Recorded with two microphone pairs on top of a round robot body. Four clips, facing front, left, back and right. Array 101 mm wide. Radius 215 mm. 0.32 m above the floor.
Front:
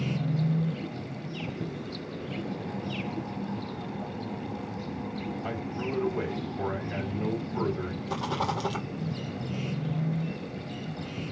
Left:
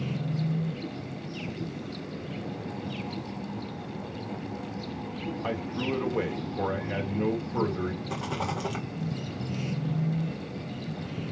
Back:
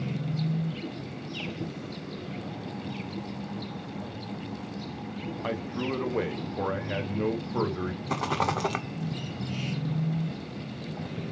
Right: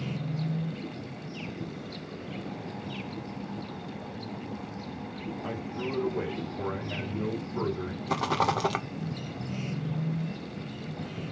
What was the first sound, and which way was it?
A man speaking, 150° left.